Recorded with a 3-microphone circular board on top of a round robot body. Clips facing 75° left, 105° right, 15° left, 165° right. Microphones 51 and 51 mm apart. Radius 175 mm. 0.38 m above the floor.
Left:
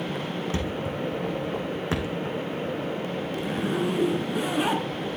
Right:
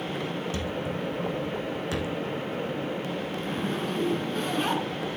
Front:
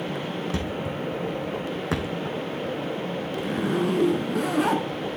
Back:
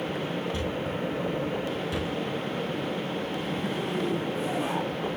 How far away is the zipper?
About 1.5 m.